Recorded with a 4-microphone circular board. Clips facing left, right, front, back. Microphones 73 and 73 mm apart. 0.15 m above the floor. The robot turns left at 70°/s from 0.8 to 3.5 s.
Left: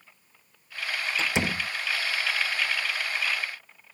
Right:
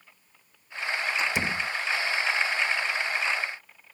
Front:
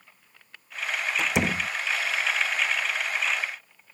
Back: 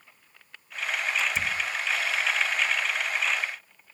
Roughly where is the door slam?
Ahead left.